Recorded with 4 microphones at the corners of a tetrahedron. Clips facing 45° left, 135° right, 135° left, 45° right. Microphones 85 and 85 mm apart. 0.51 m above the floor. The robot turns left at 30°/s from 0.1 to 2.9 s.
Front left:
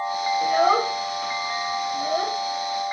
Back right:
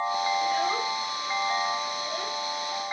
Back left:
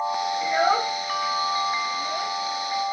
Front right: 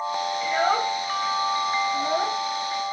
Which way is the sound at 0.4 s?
60° left.